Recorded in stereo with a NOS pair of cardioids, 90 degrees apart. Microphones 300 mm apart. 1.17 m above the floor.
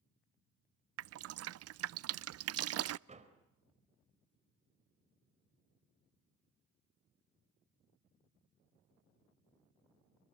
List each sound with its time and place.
1.0 s dripping: 55° right, 0.6 m
3.1 s a door slam: 20° right, 4 m